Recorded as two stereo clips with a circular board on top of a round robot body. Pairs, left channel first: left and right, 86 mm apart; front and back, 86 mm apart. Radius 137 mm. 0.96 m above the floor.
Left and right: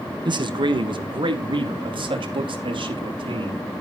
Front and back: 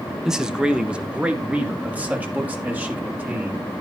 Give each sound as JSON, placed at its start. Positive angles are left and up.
{"t": 0.2, "sound": "a man speaking", "azimuth_deg": -95, "distance_m": 1.4}